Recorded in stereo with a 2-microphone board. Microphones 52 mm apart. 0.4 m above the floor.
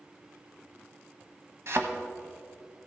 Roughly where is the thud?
Right.